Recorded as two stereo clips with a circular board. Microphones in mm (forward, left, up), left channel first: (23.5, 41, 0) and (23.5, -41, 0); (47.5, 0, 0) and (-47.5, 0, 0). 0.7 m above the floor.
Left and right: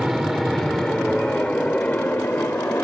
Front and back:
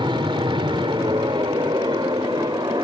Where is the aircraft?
175° right; by 2.8 s 145° left.